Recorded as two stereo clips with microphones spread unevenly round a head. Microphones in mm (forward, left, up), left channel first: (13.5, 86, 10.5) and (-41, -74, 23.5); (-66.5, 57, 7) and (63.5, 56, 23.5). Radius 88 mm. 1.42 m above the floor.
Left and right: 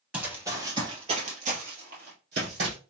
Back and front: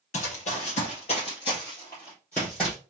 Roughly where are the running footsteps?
Behind.